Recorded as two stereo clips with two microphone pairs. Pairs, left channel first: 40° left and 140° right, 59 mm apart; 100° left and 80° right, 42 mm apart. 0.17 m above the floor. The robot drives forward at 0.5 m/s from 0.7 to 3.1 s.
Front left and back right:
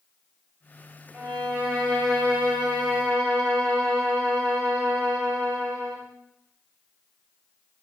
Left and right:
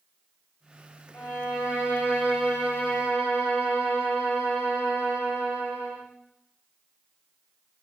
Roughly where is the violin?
Behind left.